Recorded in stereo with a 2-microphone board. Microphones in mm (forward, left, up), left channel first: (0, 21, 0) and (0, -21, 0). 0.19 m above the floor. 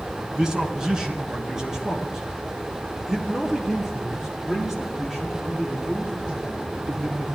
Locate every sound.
0.3 s a man speaking: 15° right (ahead or behind), 1.7 m; by 7.3 s 5° right (ahead or behind), 5.5 m